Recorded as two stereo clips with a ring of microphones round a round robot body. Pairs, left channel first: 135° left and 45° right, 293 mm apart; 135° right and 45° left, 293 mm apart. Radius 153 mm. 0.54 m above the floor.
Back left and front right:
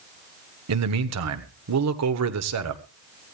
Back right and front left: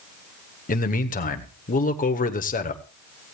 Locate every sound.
0.7 s a man speaking: 75° right, 1.5 m